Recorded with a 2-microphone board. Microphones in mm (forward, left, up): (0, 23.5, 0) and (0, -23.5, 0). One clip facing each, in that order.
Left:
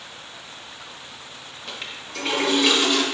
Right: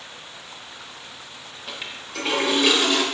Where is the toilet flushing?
5° right (ahead or behind), 0.6 m.